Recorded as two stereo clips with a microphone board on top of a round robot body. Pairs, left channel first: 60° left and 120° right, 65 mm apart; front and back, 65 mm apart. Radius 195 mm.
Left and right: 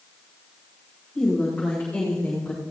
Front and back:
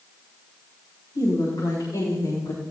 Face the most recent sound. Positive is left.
turn(degrees=-20)